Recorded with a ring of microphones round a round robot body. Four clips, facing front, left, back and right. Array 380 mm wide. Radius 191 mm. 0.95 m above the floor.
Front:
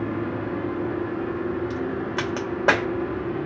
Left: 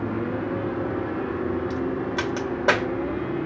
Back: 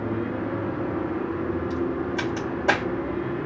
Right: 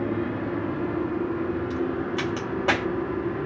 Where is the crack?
10° left, 1.3 m.